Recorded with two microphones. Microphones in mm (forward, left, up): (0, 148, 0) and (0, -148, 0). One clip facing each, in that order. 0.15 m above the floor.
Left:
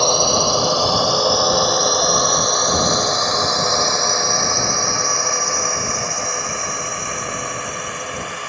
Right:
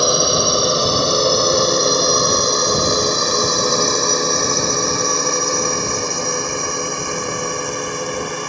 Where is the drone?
20° right (ahead or behind); by 8.5 s 55° right (ahead or behind).